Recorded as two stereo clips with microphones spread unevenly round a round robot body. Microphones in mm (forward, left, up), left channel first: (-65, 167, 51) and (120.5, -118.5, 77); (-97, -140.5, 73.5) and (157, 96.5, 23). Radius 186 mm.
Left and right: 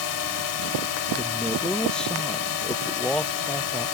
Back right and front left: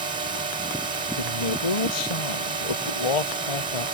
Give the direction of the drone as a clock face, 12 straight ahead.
8 o'clock.